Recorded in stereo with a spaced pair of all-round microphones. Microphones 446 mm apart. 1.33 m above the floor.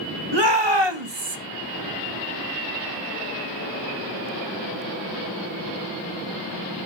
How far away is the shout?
About 2 m.